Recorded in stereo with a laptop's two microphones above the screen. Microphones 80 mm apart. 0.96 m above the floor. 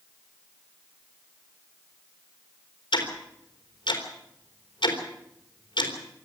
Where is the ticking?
75° left (ahead or behind), 3.5 m.